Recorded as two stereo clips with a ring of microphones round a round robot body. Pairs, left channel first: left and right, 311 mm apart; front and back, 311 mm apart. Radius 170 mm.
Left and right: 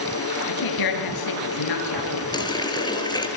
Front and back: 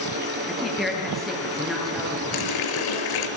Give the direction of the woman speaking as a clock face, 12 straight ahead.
9 o'clock.